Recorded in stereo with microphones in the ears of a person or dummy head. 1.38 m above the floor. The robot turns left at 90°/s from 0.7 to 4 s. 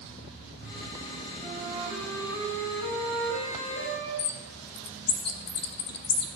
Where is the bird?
55° left (ahead or behind), 1.0 m.